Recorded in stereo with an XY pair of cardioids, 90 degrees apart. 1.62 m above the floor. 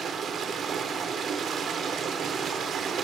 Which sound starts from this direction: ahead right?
Running water, at 0.0 s.